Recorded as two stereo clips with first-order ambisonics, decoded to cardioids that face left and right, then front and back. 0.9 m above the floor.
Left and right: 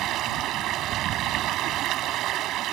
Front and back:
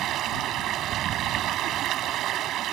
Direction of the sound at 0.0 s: 135° right.